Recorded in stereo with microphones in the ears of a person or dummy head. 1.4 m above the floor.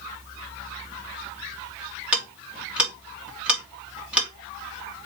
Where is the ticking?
10° right (ahead or behind), 1.6 m.